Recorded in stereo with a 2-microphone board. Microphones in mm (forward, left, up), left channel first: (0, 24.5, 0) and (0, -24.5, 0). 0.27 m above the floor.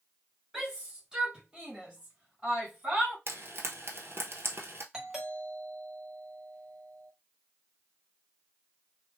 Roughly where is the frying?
Right.